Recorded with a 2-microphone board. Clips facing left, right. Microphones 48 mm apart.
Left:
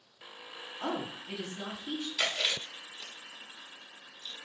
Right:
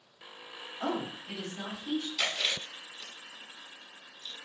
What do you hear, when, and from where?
0.8 s a woman speaking: 50° right (ahead or behind), 1.8 m; by 2.1 s 60° right (ahead or behind), 2.5 m
2.2 s chewing: 5° left (ahead or behind), 1.1 m